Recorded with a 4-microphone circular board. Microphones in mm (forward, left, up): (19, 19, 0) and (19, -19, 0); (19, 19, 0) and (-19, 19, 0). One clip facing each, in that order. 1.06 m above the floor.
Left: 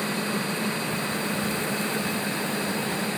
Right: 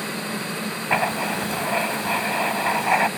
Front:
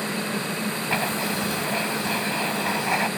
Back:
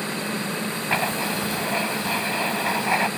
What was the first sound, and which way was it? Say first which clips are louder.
Writing: right 6 dB, back 2 dB; 100° right.